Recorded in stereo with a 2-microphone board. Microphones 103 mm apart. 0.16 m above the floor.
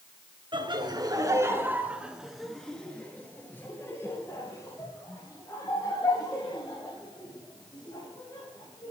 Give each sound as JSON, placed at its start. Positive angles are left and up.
{"t": 0.5, "sound": "laughter", "side_deg": -50, "distance_m": 2.5}